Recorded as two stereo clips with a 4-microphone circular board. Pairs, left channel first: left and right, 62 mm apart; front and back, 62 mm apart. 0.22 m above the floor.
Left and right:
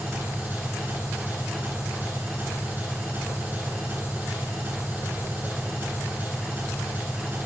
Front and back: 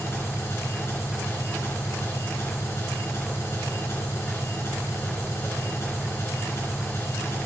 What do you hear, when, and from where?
0.0 s an engine running: 35° right, 3 m